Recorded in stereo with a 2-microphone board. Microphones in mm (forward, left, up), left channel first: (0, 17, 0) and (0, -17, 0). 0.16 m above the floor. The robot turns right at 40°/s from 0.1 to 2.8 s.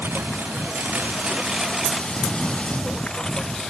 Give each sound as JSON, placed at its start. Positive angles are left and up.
{"t": 0.0, "sound": "a lawn mower", "azimuth_deg": -90}